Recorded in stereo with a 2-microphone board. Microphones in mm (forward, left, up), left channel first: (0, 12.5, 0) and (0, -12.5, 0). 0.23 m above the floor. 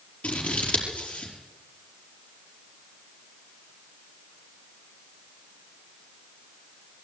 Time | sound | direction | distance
0.2 | scissors | 60° left (ahead or behind) | 5 m